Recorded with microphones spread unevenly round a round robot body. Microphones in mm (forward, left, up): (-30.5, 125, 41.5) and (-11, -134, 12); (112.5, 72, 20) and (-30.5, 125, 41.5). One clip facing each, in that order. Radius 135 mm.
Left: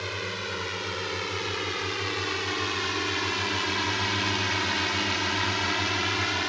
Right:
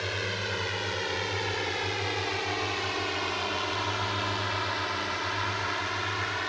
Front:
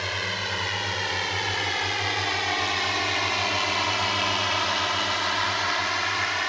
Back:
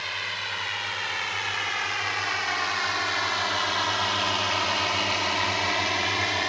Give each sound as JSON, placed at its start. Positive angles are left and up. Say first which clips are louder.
{"t": 0.0, "sound": "a drone", "louder": "right 1 dB, front 6 dB", "azimuth_deg": 10}